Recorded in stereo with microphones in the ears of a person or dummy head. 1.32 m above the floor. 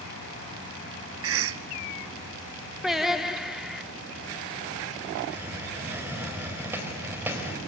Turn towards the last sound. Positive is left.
turn(degrees=-10)  # may be behind; listen again after turning